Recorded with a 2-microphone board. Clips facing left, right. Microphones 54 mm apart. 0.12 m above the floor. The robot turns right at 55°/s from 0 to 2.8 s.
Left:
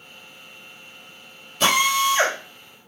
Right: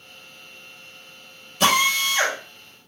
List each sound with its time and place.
1.6 s a drill: 5° right, 4 m; by 2.4 s 35° left, 4 m